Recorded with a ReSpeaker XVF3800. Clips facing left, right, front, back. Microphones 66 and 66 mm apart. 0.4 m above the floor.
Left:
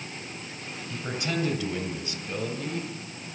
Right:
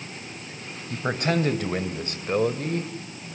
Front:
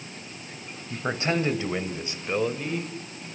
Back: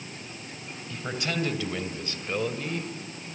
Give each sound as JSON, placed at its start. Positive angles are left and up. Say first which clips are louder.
{"t": 0.9, "sound": "a man speaking", "louder": "right 6 dB, front 5 dB", "azimuth_deg": -55, "distance_m": 3.0}